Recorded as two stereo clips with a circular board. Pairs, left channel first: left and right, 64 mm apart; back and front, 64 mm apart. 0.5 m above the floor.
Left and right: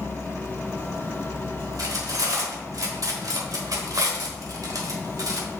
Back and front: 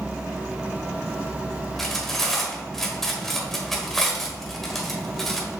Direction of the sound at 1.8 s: 95° right.